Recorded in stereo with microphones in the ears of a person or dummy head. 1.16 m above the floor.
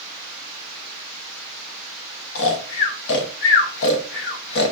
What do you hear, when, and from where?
2.4 s snoring: 65° left (ahead or behind), 0.8 m